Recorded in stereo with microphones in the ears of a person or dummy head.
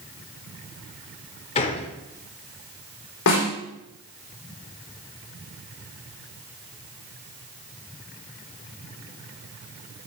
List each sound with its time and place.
1.6 s a gunshot: 30° left (ahead or behind), 1.0 m
3.3 s a snare drum: 70° left (ahead or behind), 4 m